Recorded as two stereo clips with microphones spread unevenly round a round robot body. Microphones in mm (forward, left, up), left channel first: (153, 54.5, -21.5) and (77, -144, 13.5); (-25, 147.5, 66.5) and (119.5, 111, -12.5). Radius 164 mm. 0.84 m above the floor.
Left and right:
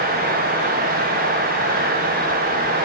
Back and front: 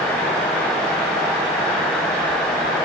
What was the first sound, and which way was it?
Only background noise.